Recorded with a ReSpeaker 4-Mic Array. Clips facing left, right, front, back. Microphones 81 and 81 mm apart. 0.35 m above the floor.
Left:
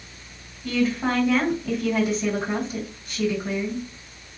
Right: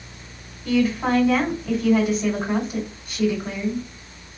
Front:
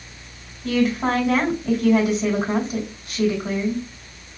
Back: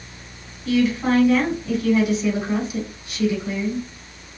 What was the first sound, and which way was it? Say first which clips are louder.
A woman speaking: right 3 dB, back 1 dB; 10° right.